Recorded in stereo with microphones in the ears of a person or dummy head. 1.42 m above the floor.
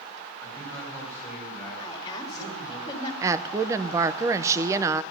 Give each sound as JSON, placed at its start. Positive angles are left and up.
{"t": 0.4, "sound": "a man speaking", "side_deg": 10, "distance_m": 9.5}
{"t": 1.8, "sound": "a woman speaking", "side_deg": 25, "distance_m": 2.5}
{"t": 3.2, "sound": "a woman speaking", "side_deg": -20, "distance_m": 0.7}